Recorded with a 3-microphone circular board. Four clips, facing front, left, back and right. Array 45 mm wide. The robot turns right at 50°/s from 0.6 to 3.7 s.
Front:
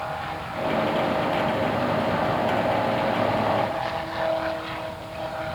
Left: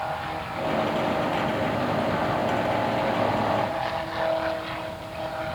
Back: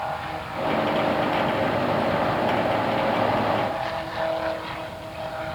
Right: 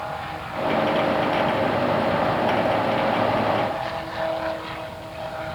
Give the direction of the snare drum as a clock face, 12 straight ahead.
No snare drum in this recording.